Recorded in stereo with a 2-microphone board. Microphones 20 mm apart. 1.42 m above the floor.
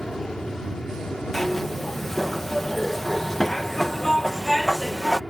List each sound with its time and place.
0.0 s an aircraft: 40° left (ahead or behind)
1.3 s a zipper: 15° left (ahead or behind)